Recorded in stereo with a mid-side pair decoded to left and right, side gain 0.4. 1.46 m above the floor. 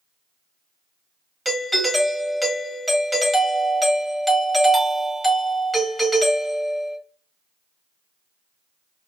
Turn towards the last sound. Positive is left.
turn(degrees=0)